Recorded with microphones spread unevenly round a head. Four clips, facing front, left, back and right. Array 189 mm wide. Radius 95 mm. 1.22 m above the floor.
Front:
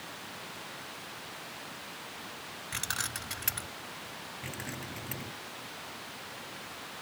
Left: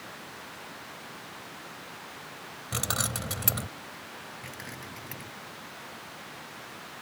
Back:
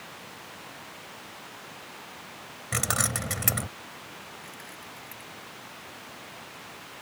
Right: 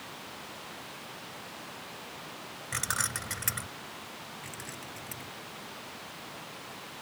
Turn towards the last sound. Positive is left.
turn(degrees=20)